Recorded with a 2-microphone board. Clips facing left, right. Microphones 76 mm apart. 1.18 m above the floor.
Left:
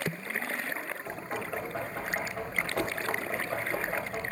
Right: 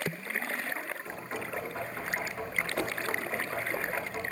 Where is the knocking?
60° left (ahead or behind), 3.5 m.